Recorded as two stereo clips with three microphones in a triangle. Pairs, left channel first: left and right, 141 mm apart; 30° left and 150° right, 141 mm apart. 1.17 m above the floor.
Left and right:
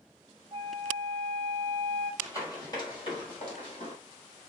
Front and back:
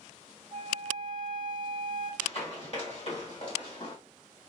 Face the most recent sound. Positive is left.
turn(degrees=60)